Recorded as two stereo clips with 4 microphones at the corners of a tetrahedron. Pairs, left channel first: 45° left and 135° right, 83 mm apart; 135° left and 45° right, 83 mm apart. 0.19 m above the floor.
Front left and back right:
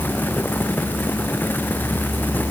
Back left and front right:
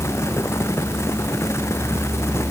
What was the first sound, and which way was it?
Only background noise.